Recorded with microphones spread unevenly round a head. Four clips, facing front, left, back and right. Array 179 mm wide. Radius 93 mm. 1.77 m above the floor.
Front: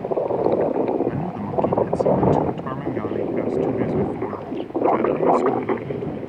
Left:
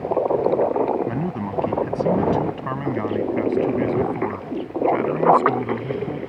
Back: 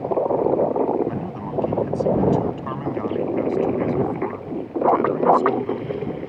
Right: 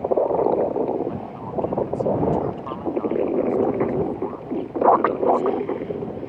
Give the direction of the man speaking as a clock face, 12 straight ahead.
9 o'clock.